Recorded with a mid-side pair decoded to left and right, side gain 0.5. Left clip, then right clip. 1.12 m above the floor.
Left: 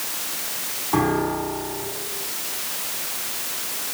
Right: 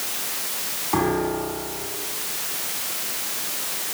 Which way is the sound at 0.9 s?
5° left.